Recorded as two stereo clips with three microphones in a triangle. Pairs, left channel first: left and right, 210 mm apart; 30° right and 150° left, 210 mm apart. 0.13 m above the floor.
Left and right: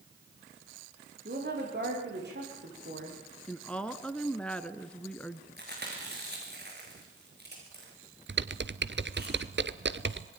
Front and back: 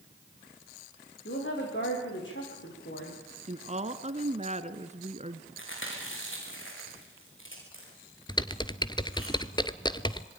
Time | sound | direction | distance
1.2 | a woman speaking | 50° right | 9 m
3.5 | a woman speaking | 170° left | 1.2 m
5.6 | chewing | 50° right | 7 m
8.3 | typing on a keyboard | 95° right | 0.9 m